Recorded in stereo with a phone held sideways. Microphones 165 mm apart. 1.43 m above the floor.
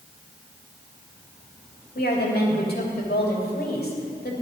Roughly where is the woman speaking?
Left.